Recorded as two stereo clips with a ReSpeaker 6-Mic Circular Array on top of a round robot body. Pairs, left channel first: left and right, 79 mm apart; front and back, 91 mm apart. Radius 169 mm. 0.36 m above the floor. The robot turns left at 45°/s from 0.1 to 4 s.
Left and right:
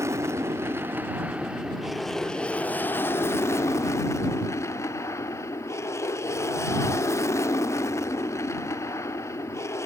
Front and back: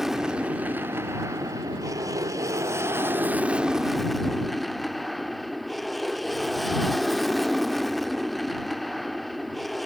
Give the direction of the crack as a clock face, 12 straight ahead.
No crack in this recording.